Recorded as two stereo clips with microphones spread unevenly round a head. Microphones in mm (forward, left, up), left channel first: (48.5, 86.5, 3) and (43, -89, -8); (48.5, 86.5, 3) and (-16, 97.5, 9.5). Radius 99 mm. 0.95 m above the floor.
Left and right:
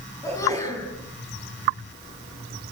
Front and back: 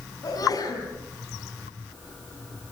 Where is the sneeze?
15° left, 8.5 m.